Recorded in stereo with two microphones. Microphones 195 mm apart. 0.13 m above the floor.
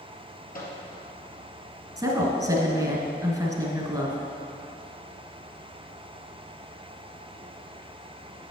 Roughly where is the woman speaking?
Centre.